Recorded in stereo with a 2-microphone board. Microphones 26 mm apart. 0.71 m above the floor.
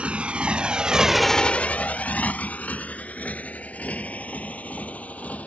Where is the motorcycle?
55° right (ahead or behind); by 5.5 s 70° left (ahead or behind).